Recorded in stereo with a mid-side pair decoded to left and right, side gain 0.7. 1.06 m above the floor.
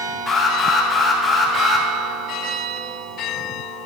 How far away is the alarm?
About 5.5 m.